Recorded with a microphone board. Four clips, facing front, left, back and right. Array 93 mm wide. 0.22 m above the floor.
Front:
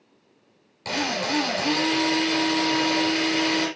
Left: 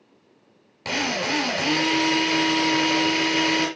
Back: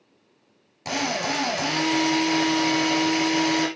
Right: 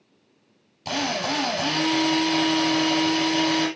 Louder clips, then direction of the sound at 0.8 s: Left 1 dB, even; 105° left.